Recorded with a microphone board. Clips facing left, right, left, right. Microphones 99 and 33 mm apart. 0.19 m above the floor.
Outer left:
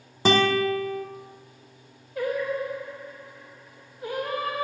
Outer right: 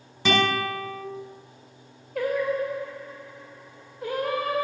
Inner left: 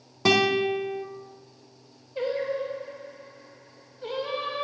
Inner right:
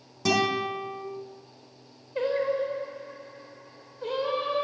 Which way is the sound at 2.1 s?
70° right (ahead or behind).